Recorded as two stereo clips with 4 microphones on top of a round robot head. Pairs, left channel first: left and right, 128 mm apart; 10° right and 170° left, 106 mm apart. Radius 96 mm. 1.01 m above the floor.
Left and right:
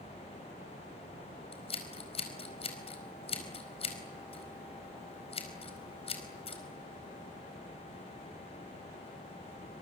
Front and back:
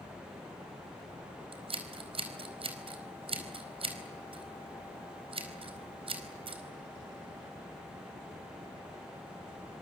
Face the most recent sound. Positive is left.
turn(degrees=135)